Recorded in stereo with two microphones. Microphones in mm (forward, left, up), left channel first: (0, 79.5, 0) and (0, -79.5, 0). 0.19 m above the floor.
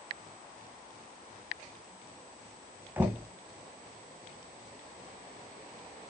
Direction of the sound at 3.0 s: 15° right (ahead or behind).